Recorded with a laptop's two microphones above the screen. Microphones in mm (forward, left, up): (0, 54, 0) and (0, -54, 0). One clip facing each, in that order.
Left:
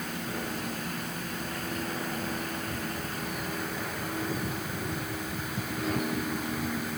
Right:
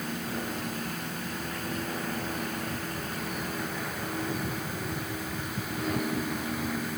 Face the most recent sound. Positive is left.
No sound to turn to.